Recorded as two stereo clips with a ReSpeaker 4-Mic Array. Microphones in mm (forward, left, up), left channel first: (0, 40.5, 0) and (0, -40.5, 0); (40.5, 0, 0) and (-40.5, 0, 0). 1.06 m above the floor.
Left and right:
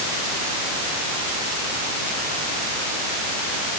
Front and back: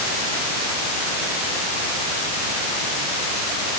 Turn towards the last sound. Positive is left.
No sound to turn to.